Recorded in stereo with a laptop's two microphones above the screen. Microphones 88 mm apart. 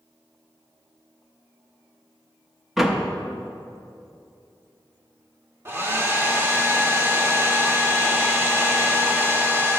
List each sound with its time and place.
2.8 s a door slam: centre (ahead or behind), 0.7 m
5.7 s a hair dryer: 30° right (ahead or behind), 1.3 m